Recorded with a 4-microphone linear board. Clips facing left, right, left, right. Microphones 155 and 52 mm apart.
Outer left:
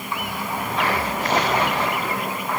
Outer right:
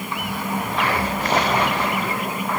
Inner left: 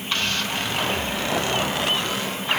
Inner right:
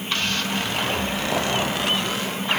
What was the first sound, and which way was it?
Only background noise.